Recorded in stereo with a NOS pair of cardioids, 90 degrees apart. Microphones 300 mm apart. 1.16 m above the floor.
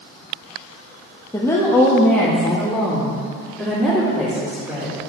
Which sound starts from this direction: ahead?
A woman speaking, at 1.3 s.